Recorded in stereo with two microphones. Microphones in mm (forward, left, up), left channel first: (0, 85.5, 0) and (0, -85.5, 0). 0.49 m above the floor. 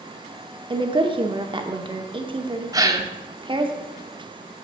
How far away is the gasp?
About 0.6 m.